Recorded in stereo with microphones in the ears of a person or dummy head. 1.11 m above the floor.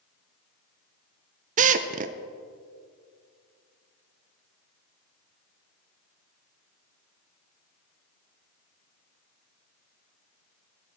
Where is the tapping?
No tapping in this recording.